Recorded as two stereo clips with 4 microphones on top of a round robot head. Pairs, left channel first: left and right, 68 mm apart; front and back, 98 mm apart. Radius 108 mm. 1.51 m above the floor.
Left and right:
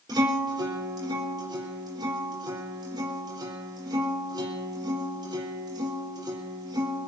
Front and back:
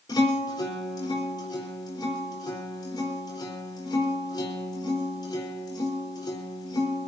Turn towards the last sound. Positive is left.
turn(degrees=-55)